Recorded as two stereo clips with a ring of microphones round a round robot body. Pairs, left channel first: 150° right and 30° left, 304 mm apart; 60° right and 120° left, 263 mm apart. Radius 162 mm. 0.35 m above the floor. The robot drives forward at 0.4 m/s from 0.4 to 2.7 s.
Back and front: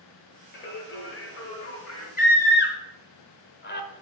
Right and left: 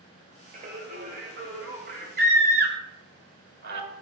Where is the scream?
155° left, 1.1 m; by 3.9 s 160° left, 1.2 m.